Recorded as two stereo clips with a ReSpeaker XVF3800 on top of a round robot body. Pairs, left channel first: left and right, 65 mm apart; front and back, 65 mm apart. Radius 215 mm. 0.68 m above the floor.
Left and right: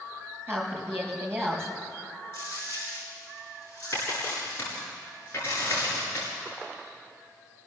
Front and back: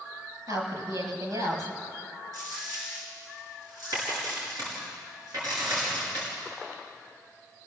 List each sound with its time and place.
0.5 s a woman speaking: 145° right, 5 m
2.3 s a dropped coin: 145° left, 6.5 m